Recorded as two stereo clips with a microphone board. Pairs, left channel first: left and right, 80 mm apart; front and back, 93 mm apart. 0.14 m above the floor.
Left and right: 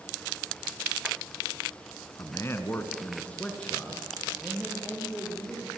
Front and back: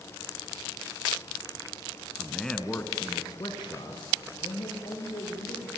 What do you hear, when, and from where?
2.2 s a man speaking: 100° left, 1.6 m; by 5.7 s 5° right, 4.5 m